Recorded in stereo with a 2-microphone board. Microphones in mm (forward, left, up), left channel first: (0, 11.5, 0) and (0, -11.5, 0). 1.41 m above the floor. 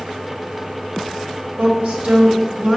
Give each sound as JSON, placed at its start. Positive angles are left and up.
{"t": 1.6, "sound": "a woman speaking", "side_deg": -80, "distance_m": 2.0}